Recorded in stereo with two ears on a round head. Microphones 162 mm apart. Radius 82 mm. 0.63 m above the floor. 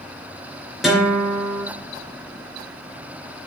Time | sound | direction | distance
0.8 | a guitar | centre (ahead or behind) | 2.5 m